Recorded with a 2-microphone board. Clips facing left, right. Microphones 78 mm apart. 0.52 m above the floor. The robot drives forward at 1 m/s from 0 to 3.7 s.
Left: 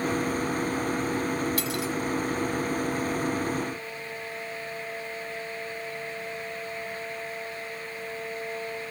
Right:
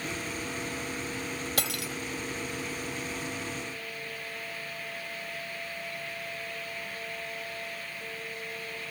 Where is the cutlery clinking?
75° right (ahead or behind); by 1.9 s 70° right (ahead or behind).